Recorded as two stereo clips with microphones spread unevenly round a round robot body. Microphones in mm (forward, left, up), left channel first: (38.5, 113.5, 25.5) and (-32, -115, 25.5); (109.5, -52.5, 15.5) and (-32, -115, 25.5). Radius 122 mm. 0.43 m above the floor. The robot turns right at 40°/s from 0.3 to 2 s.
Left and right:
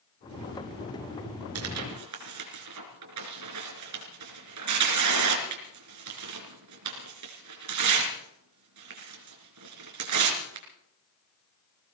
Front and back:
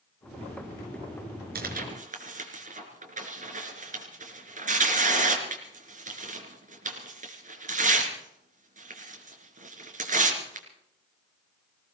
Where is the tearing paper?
140° right, 4 m; by 10.7 s 120° right, 4 m.